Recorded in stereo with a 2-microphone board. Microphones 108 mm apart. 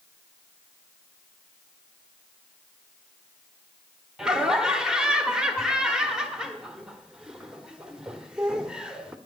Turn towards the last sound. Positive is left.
turn(degrees=-5)  # may be behind; listen again after turning